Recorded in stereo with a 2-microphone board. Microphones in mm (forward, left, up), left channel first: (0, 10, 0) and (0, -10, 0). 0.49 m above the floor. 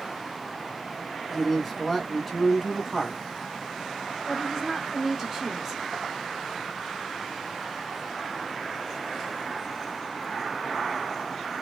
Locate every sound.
1.3 s a man speaking: 5° right (ahead or behind), 1.3 m
4.3 s a woman speaking: 15° right (ahead or behind), 1.1 m